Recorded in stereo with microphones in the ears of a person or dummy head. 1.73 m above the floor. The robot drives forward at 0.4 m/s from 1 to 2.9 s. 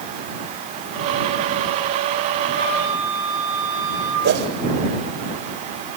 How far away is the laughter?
No laughter in this recording.